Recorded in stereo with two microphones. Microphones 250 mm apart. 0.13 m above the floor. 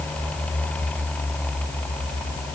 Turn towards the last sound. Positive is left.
No sound to turn to.